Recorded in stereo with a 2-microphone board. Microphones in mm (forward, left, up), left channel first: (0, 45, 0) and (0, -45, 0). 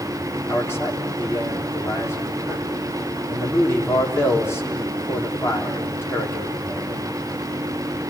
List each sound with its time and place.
0.5 s a man speaking: 30° left (ahead or behind), 4 m